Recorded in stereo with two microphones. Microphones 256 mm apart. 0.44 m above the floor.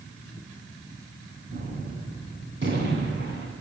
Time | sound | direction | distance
1.5 | a gunshot | 45° right (ahead or behind) | 1.7 m